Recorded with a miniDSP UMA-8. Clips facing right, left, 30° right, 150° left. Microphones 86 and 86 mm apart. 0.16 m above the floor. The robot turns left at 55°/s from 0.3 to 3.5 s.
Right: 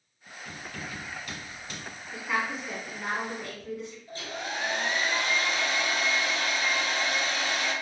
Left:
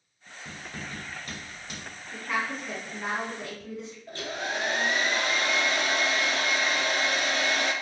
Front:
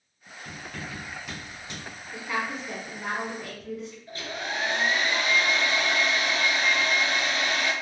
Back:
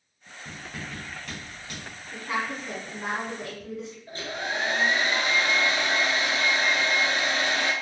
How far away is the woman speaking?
About 1.2 m.